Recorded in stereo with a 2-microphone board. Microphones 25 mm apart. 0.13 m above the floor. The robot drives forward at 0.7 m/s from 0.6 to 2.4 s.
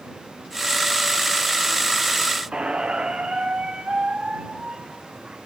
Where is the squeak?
55° right (ahead or behind), 1.4 m.